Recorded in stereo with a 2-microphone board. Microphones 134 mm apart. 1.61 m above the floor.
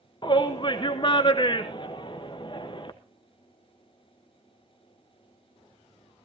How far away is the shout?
About 1.0 m.